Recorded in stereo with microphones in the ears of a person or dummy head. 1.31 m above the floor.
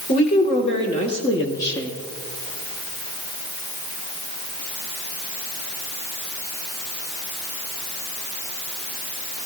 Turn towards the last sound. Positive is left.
turn(degrees=10)  # may be behind; listen again after turning